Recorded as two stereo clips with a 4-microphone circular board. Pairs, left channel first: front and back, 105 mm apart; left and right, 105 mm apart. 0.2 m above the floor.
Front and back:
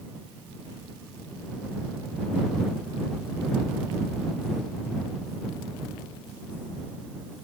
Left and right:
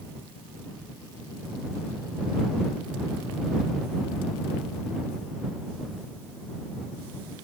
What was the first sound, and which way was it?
Only background noise.